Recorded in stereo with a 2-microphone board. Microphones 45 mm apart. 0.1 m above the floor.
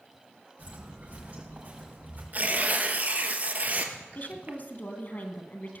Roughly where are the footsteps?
Right.